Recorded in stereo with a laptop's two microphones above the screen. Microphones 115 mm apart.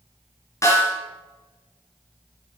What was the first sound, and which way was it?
A snare drum, 30° left (ahead or behind).